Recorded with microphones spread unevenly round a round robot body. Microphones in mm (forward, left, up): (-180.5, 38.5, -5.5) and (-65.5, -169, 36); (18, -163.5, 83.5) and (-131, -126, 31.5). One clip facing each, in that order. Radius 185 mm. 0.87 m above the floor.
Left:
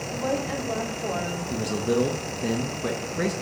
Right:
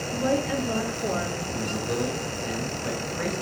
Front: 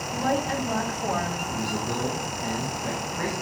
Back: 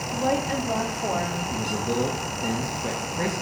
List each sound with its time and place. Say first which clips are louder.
0.1 s a woman speaking: right 3 dB, back 1 dB; 120° right, 2 m
1.5 s a man speaking: left 6 dB, back 4 dB; 110° left, 0.9 m